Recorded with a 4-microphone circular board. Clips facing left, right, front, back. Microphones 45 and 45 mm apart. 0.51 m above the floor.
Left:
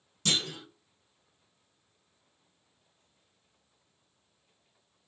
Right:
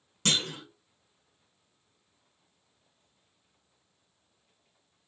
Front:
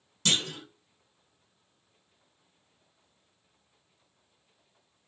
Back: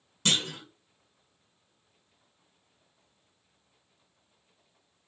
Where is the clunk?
115° right, 1.0 m.